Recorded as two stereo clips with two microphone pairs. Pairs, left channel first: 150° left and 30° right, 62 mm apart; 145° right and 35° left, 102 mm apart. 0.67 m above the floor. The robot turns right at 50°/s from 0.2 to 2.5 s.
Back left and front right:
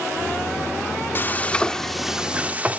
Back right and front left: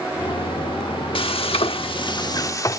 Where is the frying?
165° right, 1.3 m; by 2.8 s 95° right, 1.3 m.